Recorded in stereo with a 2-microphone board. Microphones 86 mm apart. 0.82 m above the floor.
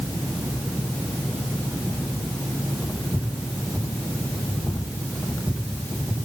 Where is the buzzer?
I don't hear a buzzer.